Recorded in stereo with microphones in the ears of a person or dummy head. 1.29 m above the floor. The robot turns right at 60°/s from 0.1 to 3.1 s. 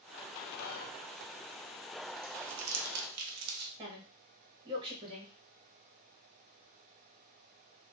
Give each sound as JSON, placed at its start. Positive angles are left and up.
{"t": 0.6, "sound": "whispering", "side_deg": 55, "distance_m": 0.7}
{"t": 2.2, "sound": "crumpling", "side_deg": -40, "distance_m": 0.8}
{"t": 3.8, "sound": "a woman speaking", "side_deg": -25, "distance_m": 1.6}